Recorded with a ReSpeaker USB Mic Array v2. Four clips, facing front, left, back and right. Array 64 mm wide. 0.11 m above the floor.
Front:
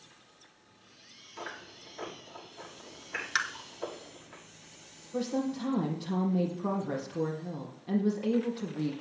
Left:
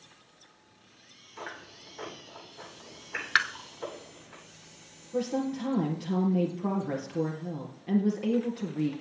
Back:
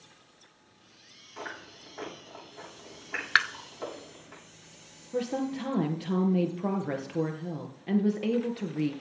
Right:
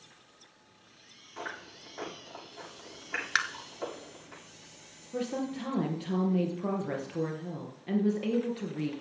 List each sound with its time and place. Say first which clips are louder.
1.4 s chewing: right 1 dB, back 2 dB; 140° right, 7 m
3.4 s tapping: left 4 dB, back 7 dB; 165° left, 0.9 m
5.1 s a woman speaking: left 4 dB, back 1 dB; 170° right, 2.5 m